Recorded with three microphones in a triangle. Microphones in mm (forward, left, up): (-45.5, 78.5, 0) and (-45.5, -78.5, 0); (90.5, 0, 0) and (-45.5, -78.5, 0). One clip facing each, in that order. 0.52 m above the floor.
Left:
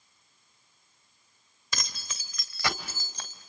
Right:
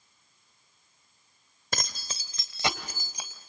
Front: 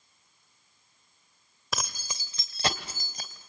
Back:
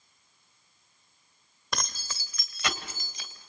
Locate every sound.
1.7 s keys jangling: 60° right, 1.3 m; by 3.5 s 10° right, 2.5 m